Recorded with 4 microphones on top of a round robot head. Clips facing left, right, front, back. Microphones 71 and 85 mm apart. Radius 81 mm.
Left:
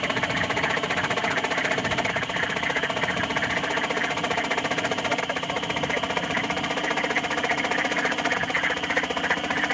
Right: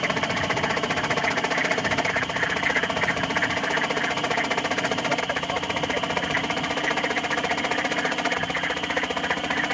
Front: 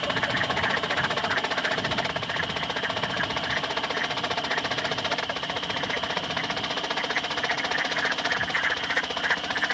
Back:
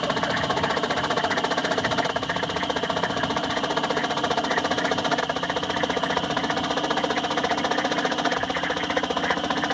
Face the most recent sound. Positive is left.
turn(degrees=175)